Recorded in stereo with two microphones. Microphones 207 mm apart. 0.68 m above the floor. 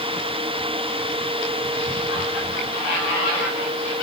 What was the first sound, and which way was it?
Only background noise.